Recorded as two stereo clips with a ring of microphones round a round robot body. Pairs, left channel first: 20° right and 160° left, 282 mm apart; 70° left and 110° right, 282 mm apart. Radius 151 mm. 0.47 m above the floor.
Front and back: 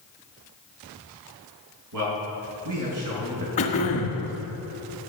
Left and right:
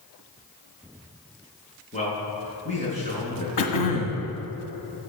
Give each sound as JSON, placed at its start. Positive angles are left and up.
{"t": 1.9, "sound": "a man speaking", "azimuth_deg": 135, "distance_m": 5.5}
{"t": 3.6, "sound": "throat clearing", "azimuth_deg": 45, "distance_m": 1.7}